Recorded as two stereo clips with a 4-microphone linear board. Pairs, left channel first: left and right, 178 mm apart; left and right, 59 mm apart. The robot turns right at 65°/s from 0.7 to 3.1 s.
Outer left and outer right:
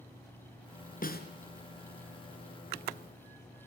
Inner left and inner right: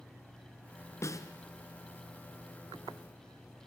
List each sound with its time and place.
1.0 s a snare drum: 55° left (ahead or behind), 2.5 m; by 1.3 s 65° left (ahead or behind), 2.5 m